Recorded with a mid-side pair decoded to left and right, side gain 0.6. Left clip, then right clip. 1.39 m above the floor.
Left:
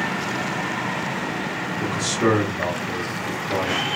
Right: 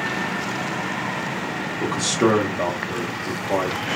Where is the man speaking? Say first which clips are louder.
Right 2 dB; 55° right, 0.9 m.